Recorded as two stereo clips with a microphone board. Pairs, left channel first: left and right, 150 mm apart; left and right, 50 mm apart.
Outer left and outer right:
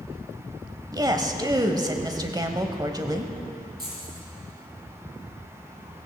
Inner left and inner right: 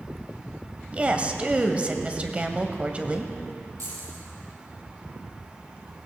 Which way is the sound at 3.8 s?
85° right.